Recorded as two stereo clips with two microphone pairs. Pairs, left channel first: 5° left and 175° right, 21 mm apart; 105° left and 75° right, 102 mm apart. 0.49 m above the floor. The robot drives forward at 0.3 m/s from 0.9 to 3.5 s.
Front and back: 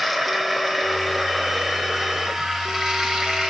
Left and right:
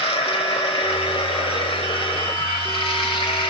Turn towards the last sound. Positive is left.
turn(degrees=130)